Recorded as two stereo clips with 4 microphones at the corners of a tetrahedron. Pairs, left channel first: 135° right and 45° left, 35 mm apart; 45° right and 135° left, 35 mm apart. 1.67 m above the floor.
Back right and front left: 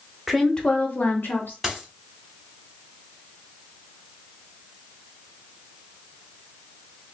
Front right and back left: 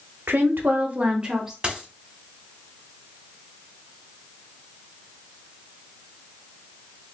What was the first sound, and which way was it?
A woman speaking, 135° left.